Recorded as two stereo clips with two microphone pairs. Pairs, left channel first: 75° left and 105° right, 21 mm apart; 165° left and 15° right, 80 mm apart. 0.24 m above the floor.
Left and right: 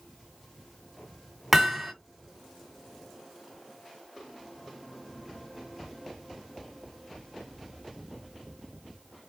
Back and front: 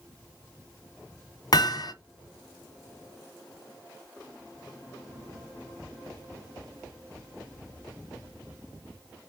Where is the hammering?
175° right, 1.2 m.